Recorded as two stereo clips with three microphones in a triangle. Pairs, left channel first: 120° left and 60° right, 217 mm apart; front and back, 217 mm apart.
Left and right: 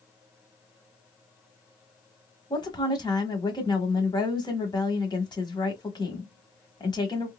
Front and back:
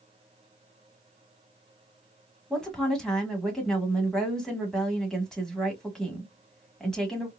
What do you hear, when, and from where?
2.5 s a woman speaking: 85° left, 1.0 m